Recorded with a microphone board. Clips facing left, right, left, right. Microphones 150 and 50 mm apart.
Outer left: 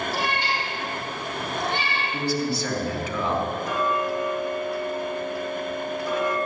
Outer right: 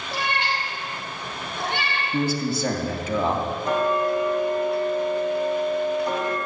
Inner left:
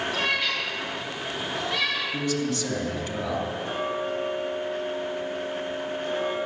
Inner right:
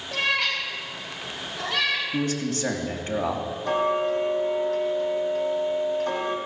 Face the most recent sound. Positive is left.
turn(degrees=-65)  # may be behind; listen again after turning